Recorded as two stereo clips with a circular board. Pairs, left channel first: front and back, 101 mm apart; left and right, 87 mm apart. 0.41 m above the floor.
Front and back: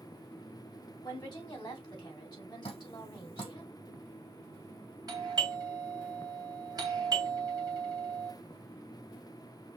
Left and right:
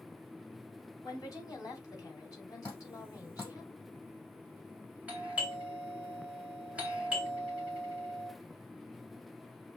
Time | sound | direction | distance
1.0 | a woman speaking | 45° left | 2.5 m
2.6 | dripping | 35° left | 3.5 m
5.1 | a doorbell | 160° right | 1.7 m